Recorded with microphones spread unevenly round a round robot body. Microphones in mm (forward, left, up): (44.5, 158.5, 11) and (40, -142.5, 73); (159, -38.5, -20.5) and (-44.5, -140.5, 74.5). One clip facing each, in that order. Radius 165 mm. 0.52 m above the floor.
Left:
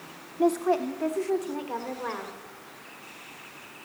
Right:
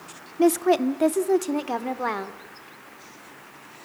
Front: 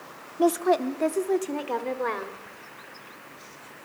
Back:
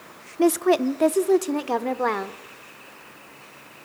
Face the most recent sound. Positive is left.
turn(degrees=-115)